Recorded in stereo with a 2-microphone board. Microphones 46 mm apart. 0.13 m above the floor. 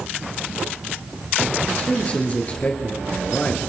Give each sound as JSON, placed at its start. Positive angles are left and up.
{"t": 1.7, "sound": "a man speaking", "side_deg": 30, "distance_m": 2.5}